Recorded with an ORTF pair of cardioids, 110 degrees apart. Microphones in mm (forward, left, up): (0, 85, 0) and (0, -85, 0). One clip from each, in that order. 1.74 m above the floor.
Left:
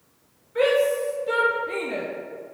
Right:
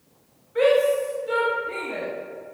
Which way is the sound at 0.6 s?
5° left.